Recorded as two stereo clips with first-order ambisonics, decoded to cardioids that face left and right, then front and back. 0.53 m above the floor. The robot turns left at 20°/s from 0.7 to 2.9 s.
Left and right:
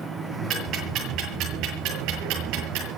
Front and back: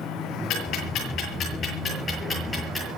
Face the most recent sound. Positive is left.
turn(degrees=-80)